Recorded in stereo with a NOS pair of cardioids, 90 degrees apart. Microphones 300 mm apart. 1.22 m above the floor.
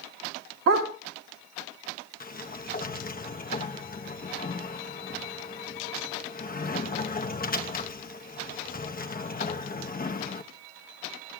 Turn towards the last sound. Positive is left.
turn(degrees=30)